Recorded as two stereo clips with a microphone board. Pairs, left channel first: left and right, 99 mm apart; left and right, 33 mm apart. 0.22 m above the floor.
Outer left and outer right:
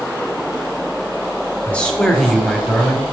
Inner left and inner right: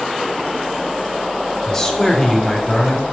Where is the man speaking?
15° left (ahead or behind), 1.0 m; by 3.1 s 15° right (ahead or behind), 1.1 m.